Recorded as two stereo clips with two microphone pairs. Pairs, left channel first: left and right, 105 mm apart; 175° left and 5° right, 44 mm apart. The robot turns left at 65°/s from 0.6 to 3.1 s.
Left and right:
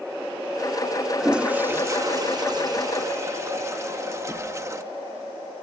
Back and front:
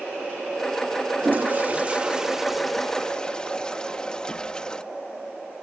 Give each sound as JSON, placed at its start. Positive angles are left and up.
{"t": 1.2, "sound": "a toilet flushing", "azimuth_deg": -5}